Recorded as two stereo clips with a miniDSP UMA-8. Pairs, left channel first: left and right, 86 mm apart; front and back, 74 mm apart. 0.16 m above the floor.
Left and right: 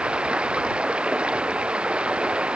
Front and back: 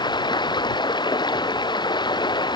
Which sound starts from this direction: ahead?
Running water, at 0.0 s.